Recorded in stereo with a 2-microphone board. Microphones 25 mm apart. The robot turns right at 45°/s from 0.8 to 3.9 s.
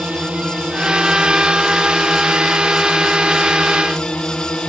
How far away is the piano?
I don't hear a piano.